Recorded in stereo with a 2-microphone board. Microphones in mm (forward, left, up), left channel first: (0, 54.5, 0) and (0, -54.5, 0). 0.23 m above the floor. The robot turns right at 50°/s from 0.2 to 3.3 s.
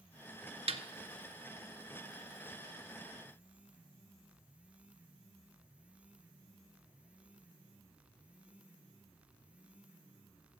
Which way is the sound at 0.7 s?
70° right (ahead or behind).